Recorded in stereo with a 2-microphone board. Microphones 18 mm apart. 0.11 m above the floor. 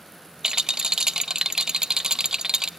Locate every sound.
0.4 s a rattle: 50° right (ahead or behind), 0.5 m